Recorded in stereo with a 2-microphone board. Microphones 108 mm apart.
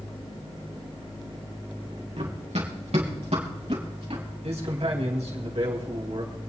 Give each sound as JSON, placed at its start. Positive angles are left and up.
{"t": 2.2, "sound": "running footsteps", "side_deg": -75, "distance_m": 3.0}
{"t": 4.4, "sound": "a man speaking", "side_deg": -80, "distance_m": 4.0}